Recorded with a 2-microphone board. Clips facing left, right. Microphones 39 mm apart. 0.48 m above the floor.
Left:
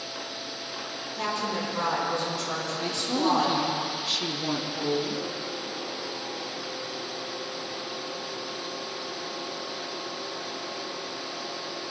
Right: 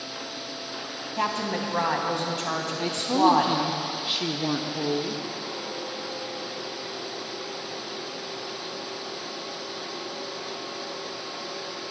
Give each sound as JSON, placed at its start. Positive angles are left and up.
{"t": 1.2, "sound": "a woman speaking", "side_deg": -60, "distance_m": 4.0}
{"t": 2.8, "sound": "a woman speaking", "side_deg": -15, "distance_m": 0.9}